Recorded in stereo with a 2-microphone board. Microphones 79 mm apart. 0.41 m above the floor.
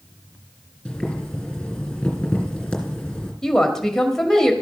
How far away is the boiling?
About 2.5 m.